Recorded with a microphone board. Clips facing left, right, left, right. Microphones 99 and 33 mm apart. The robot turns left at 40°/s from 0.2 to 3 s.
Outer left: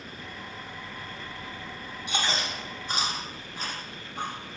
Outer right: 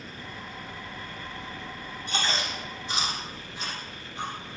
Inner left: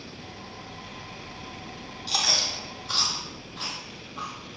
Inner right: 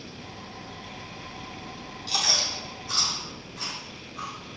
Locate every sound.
2.1 s chewing: 10° left (ahead or behind), 3 m; by 4.6 s 45° left (ahead or behind), 3 m